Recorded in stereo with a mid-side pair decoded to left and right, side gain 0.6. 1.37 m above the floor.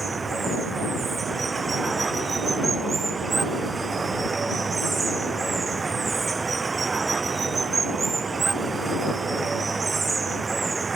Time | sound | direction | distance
0.0 | running water | 25° right | ?